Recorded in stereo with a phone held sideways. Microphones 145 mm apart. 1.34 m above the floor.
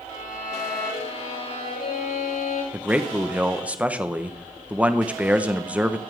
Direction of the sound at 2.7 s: 10° right (ahead or behind).